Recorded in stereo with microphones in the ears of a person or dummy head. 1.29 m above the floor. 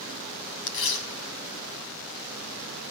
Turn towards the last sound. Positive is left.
turn(degrees=70)  # may be behind; listen again after turning